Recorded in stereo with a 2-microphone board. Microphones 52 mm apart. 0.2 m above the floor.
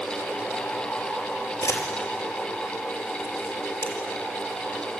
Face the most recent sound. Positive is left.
turn(degrees=65)  # may be behind; listen again after turning